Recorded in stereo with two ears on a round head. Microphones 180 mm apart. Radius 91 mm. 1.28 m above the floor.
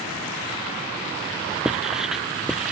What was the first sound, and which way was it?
Writing, centre (ahead or behind).